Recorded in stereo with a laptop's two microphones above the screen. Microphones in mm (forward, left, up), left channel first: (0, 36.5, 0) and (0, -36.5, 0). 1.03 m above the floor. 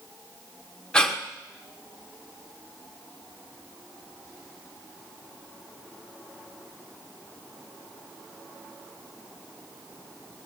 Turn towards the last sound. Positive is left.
turn(degrees=10)  # may be behind; listen again after turning